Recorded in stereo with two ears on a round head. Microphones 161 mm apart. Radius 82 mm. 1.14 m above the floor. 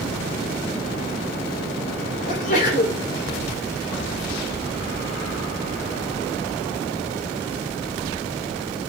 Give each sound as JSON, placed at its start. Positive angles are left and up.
{"t": 2.3, "sound": "a sneeze", "side_deg": 45, "distance_m": 3.0}